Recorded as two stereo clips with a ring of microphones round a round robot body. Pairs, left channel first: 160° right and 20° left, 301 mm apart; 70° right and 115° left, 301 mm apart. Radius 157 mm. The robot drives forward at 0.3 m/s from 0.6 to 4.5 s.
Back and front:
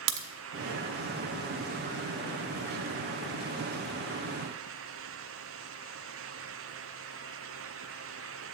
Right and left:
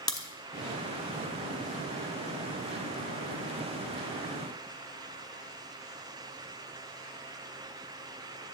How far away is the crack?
About 1.2 m.